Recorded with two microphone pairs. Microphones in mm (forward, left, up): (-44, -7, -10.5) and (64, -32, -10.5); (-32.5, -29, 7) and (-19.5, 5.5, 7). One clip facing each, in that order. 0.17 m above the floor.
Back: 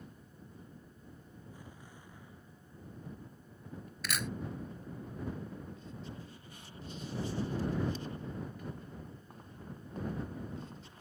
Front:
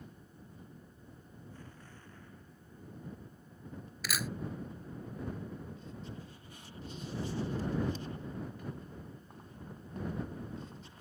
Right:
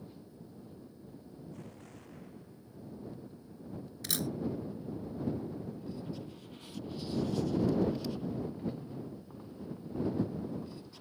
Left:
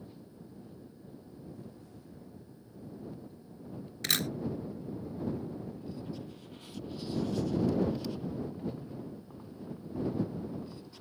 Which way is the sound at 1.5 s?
115° right.